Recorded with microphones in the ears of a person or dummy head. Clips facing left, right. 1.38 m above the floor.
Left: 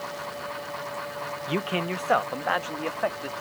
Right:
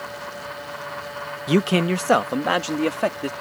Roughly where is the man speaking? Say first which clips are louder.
Right 10 dB; right.